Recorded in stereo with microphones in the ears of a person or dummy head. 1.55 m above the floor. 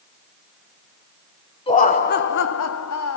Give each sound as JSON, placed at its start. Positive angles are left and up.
{"t": 1.7, "sound": "laughter", "side_deg": 25, "distance_m": 1.1}